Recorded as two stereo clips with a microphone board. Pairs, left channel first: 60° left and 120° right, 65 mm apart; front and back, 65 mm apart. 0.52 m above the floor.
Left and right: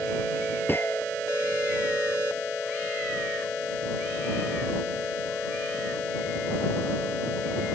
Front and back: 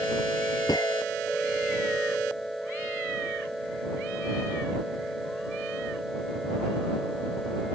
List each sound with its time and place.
0.7 s a gunshot: 5° left